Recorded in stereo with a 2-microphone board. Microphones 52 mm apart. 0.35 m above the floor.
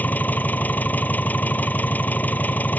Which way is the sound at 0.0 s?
35° left (ahead or behind).